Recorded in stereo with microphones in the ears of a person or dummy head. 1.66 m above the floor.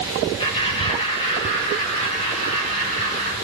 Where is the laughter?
25° left (ahead or behind), 3 m; by 3.3 s 35° left (ahead or behind), 5 m.